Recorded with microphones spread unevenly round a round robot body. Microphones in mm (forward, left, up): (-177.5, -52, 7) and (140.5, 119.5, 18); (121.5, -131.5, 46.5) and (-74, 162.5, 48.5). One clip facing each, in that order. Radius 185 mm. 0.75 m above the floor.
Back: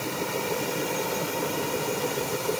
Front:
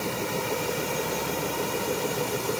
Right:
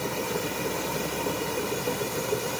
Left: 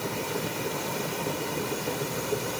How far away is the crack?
No crack in this recording.